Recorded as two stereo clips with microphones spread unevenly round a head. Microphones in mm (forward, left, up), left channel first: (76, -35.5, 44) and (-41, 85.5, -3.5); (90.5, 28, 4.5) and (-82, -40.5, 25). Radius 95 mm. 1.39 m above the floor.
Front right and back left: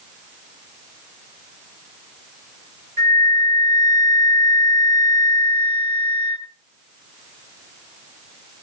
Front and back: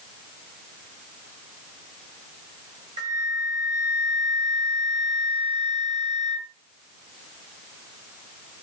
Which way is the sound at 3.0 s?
130° left.